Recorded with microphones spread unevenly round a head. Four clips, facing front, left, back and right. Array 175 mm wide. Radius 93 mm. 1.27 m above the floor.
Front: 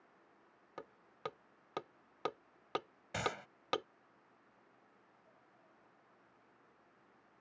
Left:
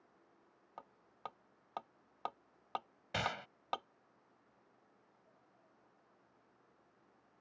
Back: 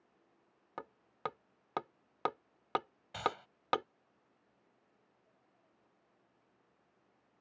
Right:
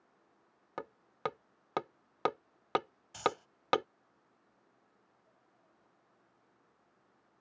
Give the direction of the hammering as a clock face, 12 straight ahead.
3 o'clock.